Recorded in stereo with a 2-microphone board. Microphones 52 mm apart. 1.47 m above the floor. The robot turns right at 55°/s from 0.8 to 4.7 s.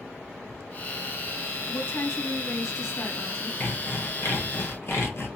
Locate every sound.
1.7 s a woman speaking: 40° left, 1.6 m; by 3.5 s 140° left, 1.6 m
3.6 s sawing: 50° left, 0.8 m; by 5.3 s 110° left, 0.8 m